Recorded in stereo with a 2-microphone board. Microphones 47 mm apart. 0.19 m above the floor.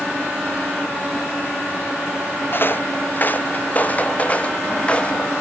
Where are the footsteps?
45° left (ahead or behind); by 5.3 s 20° left (ahead or behind).